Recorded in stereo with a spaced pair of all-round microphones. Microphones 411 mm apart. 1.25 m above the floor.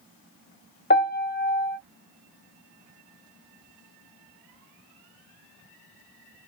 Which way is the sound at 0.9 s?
25° left (ahead or behind).